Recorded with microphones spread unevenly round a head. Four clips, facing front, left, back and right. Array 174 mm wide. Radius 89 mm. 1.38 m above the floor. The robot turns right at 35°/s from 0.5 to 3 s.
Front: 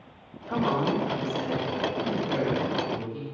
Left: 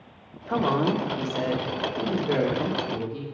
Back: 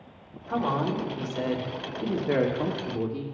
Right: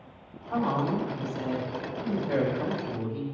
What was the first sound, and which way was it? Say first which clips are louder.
A woman speaking: left 4 dB, front 1 dB; 80° left.